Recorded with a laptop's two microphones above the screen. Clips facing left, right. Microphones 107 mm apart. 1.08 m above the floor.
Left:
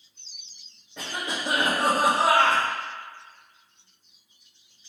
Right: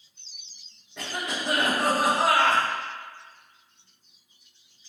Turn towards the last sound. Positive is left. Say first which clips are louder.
# even
turn(degrees=10)  # may be behind; listen again after turning